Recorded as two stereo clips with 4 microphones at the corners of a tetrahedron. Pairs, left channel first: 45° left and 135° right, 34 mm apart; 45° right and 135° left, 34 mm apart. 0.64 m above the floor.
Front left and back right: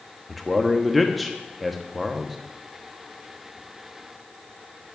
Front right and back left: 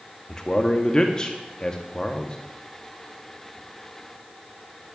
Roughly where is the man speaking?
Ahead right.